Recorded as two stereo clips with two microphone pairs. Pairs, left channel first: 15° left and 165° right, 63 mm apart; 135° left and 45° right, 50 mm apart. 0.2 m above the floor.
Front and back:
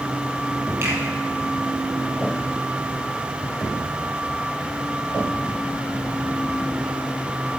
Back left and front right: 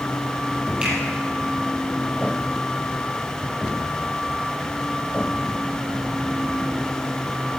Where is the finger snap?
115° right, 4.5 m.